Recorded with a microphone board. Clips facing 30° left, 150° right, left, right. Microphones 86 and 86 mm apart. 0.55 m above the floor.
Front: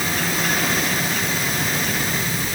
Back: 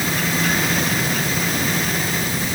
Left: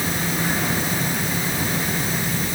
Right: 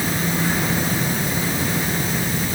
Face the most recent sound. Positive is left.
No sound to turn to.